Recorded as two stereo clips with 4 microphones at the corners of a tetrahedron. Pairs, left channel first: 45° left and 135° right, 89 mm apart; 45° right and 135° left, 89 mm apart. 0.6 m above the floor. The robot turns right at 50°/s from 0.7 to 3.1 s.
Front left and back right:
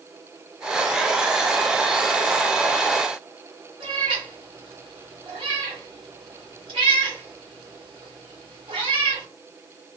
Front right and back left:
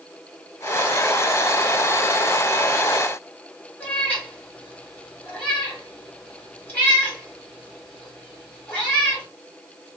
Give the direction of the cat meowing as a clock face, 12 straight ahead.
4 o'clock.